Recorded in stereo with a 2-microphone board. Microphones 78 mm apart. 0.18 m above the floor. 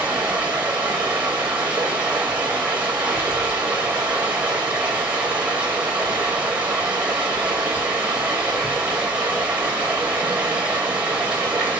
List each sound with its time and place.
0.0 s running water: 20° right (ahead or behind), 2.5 m